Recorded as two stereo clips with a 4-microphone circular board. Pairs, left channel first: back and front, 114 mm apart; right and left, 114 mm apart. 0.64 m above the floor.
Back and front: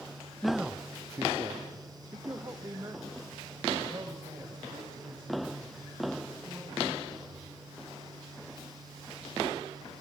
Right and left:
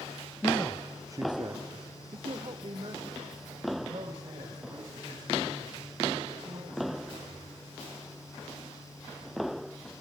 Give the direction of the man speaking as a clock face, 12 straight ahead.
3 o'clock.